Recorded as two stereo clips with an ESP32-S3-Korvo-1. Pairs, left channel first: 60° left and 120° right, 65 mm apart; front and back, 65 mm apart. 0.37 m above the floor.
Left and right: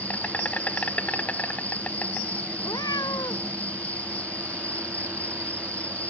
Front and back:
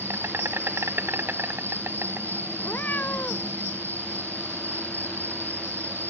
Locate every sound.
0.0 s an insect: 125° left
2.6 s a cat meowing: 65° left